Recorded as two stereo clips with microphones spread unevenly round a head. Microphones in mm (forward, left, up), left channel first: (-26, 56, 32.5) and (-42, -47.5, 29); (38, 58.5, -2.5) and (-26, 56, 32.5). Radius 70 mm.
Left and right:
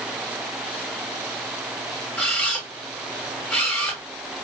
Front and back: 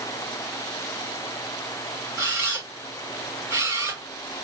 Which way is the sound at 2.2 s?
165° left.